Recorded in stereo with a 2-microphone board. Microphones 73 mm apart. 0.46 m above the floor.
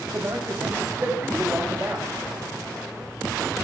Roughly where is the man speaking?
Right.